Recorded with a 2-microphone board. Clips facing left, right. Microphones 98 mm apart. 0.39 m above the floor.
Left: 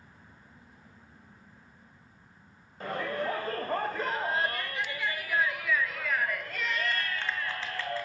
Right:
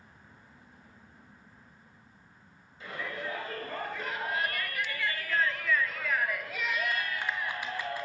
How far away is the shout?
About 1.8 m.